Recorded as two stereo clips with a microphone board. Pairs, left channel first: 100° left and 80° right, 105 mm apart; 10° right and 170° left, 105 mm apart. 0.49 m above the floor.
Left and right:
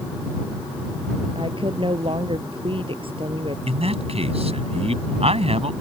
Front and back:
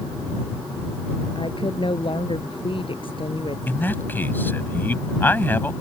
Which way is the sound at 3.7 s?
85° right.